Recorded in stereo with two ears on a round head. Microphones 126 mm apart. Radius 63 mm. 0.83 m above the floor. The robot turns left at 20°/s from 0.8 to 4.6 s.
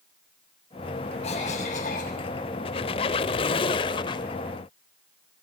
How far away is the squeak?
About 0.7 m.